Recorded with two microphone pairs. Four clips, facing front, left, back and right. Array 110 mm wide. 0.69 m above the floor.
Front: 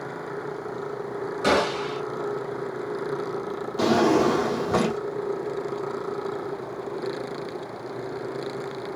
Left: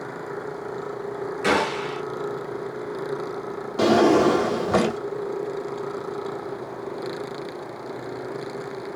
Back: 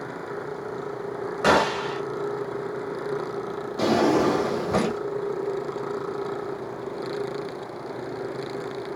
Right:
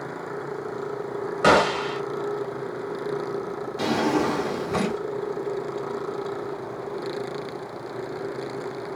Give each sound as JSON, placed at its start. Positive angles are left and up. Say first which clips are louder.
{"t": 1.4, "sound": "a gunshot", "louder": "right 4 dB, back 2 dB", "azimuth_deg": -110, "distance_m": 1.0}
{"t": 3.8, "sound": "a drawer", "louder": "left 7 dB, front 1 dB", "azimuth_deg": 75, "distance_m": 0.8}